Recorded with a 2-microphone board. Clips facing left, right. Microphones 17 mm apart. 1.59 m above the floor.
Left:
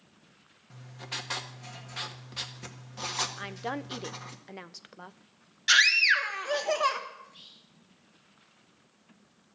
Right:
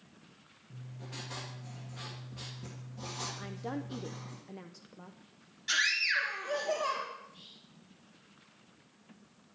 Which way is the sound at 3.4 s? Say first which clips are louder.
Left 4 dB; 35° left (ahead or behind).